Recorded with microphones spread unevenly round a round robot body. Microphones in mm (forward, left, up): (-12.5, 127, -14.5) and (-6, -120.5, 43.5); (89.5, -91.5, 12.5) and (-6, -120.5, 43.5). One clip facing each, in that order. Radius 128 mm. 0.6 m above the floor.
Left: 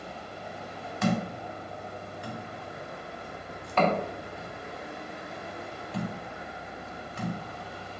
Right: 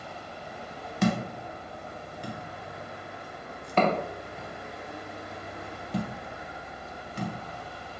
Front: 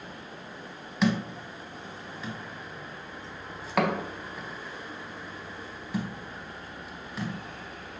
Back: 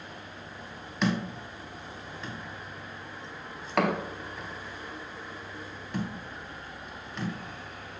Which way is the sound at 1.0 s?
90° right.